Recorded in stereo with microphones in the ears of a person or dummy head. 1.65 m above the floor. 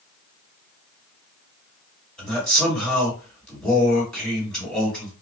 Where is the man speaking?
5° left (ahead or behind), 1.8 m.